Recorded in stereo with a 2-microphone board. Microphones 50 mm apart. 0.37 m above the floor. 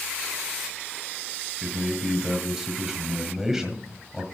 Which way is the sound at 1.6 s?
5° right (ahead or behind).